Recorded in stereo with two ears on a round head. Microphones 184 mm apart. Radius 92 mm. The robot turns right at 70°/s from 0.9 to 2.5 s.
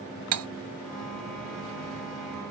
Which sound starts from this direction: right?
Cutlery clinking, at 0.3 s.